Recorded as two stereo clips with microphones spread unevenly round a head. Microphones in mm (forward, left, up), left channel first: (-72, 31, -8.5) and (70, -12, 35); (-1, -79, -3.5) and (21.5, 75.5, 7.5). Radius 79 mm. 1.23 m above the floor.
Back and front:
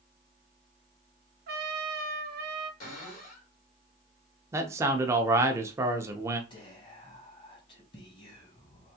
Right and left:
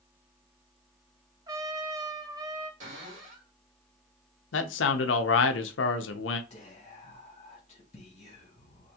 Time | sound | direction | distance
1.5 | a trumpet | 15° left | 0.7 m
2.8 | a cupboard door | 125° left | 2 m
4.5 | a man speaking | 90° right | 0.6 m
6.5 | whispering | 155° right | 1.1 m